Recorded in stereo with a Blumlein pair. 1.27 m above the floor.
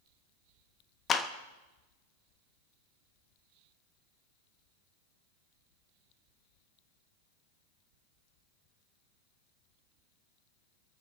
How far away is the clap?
About 1.2 m.